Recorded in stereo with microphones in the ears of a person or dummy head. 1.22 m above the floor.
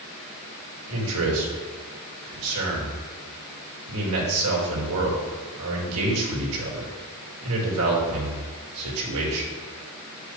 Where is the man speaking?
80° right, 2.0 m.